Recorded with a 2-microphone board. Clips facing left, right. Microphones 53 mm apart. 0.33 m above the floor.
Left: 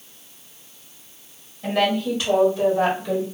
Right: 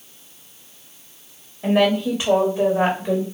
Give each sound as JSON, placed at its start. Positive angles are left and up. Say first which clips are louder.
{"t": 1.6, "sound": "a woman speaking", "louder": "right 3 dB", "side_deg": -25, "distance_m": 1.8}